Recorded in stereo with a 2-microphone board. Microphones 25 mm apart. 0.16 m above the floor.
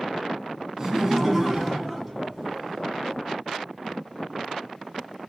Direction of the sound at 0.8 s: 15° right (ahead or behind).